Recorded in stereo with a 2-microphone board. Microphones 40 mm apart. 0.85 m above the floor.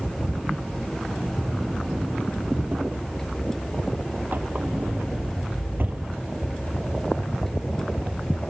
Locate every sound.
1.4 s a drawer: 50° right (ahead or behind)